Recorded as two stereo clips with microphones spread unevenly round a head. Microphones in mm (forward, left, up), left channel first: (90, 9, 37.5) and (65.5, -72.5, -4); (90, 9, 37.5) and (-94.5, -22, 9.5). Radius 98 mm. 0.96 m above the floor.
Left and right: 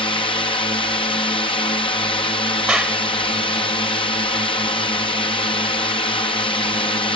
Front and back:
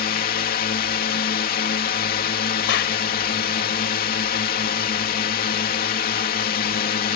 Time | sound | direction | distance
0.0 | a drone | 45° left | ?
2.7 | a clap | 25° right | ?